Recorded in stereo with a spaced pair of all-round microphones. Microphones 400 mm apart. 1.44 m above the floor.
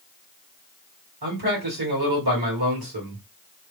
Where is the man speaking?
65° right (ahead or behind), 1.7 m.